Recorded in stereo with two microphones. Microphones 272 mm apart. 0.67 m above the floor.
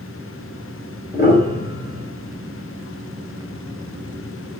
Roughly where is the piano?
Left.